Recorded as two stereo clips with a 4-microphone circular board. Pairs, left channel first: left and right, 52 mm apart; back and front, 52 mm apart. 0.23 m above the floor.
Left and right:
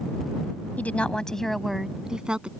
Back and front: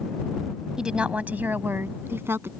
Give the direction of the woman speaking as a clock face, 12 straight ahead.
10 o'clock.